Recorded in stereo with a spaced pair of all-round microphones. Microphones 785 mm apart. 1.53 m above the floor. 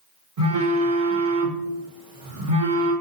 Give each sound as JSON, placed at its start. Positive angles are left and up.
{"t": 0.4, "sound": "a phone buzzing", "side_deg": -45, "distance_m": 0.9}